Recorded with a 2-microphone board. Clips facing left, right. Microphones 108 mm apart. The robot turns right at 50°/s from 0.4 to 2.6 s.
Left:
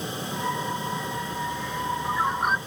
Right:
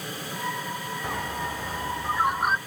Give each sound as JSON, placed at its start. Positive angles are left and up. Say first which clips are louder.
{"t": 1.0, "sound": "a bird", "louder": "left 1 dB", "azimuth_deg": -75}